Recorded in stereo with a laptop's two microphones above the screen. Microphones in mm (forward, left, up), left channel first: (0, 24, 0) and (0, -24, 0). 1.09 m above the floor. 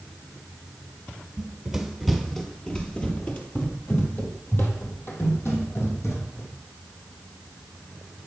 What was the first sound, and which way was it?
Running footsteps, 10° right (ahead or behind).